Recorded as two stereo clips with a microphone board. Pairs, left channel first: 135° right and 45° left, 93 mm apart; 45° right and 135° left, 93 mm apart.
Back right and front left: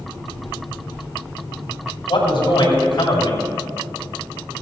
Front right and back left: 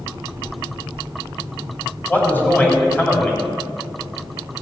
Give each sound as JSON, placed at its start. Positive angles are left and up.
{"t": 2.1, "sound": "a man speaking", "azimuth_deg": -115, "distance_m": 3.0}